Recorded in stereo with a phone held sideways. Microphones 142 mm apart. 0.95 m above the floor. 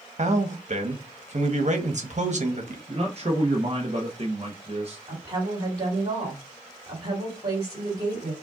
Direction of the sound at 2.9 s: 45° right (ahead or behind).